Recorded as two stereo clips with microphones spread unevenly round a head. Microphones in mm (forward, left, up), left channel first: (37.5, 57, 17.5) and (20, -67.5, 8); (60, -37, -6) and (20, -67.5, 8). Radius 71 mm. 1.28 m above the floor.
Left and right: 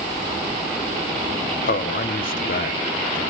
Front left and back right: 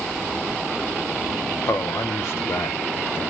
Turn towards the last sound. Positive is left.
turn(degrees=80)